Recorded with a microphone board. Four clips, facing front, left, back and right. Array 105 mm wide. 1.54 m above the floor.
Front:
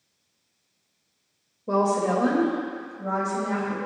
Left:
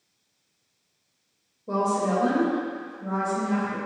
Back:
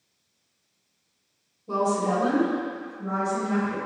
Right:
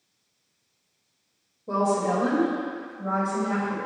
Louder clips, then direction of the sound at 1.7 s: Right 1 dB, front 2 dB; straight ahead.